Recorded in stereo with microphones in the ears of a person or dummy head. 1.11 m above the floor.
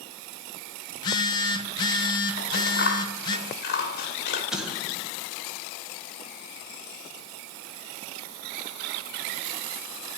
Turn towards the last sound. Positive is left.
turn(degrees=0)  # may be behind; listen again after turning